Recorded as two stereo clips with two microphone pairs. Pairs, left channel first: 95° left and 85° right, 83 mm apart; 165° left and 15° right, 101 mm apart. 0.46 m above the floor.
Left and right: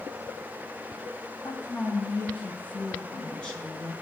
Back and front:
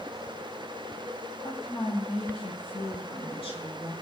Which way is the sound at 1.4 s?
155° left.